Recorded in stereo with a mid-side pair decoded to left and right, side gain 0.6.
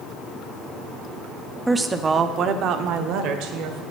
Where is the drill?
I don't hear a drill.